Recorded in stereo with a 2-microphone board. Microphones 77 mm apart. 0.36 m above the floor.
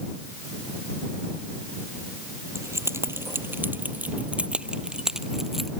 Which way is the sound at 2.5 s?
40° right (ahead or behind).